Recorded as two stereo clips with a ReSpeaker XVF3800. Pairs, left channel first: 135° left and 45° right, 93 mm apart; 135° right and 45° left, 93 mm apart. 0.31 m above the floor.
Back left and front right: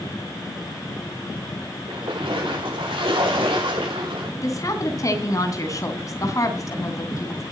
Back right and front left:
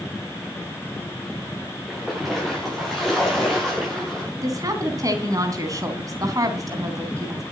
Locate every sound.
1.9 s a splash: 45° right, 5.5 m
4.4 s a woman speaking: 90° left, 3 m